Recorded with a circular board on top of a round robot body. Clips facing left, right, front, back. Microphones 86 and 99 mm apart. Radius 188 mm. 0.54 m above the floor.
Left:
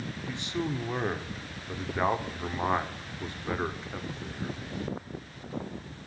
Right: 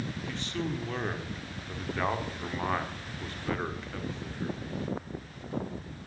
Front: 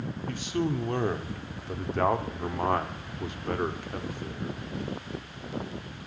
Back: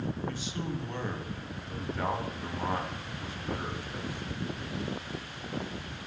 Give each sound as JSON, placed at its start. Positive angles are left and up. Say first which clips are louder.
{"t": 0.3, "sound": "a man speaking", "louder": "left 3 dB, front 6 dB", "azimuth_deg": 20, "distance_m": 2.0}